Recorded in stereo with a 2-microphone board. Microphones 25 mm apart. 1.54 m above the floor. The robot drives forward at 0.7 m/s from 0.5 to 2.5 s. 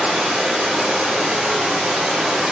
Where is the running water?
55° right (ahead or behind), 3.5 m; by 2.5 s 65° right (ahead or behind), 3 m.